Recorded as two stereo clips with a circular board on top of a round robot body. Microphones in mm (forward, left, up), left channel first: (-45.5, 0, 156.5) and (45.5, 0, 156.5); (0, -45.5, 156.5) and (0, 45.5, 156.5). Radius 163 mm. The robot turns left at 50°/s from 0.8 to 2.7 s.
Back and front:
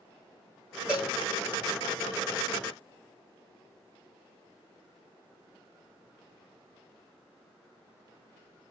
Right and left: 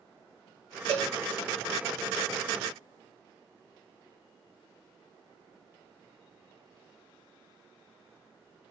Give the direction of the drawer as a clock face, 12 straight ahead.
No drawer in this recording.